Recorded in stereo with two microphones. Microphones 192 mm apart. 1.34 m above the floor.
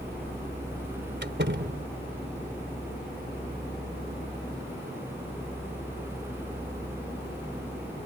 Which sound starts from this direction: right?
A door slam, at 1.2 s.